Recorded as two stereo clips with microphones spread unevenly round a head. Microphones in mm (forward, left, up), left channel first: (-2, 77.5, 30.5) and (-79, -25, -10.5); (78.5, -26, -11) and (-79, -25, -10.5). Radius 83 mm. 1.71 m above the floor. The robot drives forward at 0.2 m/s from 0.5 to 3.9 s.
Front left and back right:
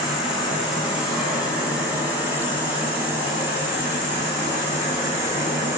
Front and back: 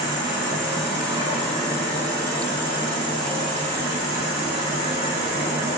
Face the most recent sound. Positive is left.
turn(degrees=145)